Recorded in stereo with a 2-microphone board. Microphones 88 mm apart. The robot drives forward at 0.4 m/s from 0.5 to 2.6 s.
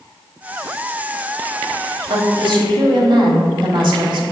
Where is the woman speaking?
65° right (ahead or behind), 1.7 m.